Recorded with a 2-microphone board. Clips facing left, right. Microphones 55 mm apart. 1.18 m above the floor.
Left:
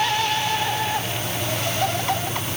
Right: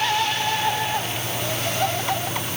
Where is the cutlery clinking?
I don't hear cutlery clinking.